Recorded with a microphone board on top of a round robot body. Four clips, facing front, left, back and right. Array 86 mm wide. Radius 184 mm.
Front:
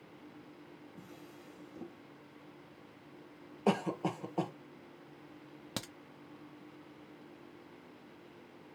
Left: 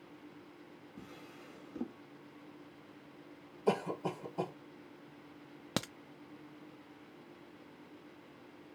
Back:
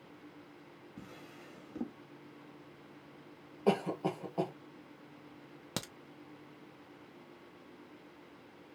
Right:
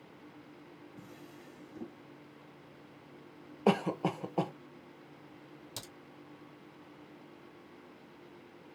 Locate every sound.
1.0 s a drawer: 155° left, 1.2 m
3.7 s a cough: 75° right, 1.5 m
5.8 s a crack: 95° left, 0.5 m